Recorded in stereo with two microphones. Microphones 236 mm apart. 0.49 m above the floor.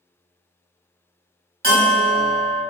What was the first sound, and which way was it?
A bell, 40° right (ahead or behind).